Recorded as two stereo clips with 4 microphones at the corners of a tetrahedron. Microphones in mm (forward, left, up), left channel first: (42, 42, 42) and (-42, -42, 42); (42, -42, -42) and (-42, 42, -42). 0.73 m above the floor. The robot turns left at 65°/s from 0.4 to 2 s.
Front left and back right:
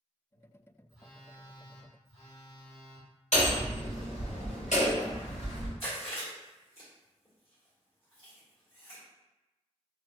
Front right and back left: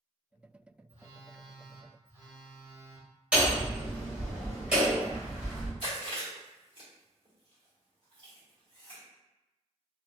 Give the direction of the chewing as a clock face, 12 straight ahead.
9 o'clock.